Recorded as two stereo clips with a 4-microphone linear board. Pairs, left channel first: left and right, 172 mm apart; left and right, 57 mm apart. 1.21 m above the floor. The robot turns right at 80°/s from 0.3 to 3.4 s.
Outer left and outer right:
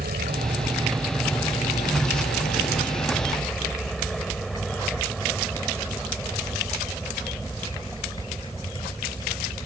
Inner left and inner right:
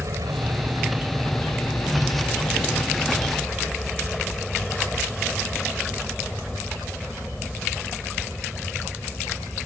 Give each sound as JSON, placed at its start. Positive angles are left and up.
{"t": 0.0, "sound": "a helicopter", "azimuth_deg": -70}